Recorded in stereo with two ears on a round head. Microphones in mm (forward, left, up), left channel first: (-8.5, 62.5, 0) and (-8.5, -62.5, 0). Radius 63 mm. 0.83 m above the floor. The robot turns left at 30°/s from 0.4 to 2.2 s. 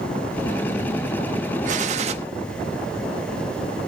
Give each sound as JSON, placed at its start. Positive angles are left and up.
{"t": 1.6, "sound": "a gunshot", "side_deg": -60, "distance_m": 1.0}